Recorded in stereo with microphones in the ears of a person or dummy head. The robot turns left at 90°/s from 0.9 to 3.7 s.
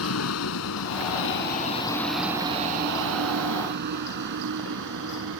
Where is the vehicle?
80° left; by 5.4 s 75° right (ahead or behind).